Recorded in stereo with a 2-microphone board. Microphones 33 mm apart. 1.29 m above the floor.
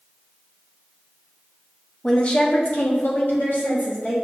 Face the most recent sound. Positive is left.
turn(degrees=75)  # may be behind; listen again after turning